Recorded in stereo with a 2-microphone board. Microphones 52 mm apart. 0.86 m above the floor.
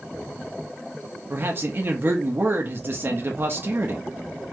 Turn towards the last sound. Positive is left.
turn(degrees=-45)  # may be behind; listen again after turning